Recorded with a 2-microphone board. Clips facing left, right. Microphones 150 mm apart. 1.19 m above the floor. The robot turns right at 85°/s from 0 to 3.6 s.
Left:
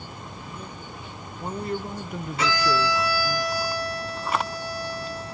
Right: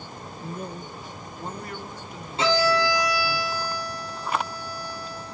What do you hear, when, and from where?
0.4 s a man speaking: 80° right, 0.6 m; by 3.4 s 175° left, 0.6 m
2.4 s a violin: 25° right, 3 m; by 5.3 s 75° left, 3 m